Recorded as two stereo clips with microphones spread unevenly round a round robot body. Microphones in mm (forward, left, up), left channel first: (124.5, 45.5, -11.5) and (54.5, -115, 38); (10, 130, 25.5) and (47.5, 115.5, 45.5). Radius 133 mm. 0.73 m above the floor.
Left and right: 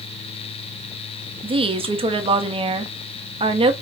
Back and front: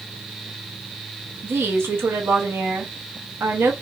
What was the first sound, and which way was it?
A woman speaking, 45° right.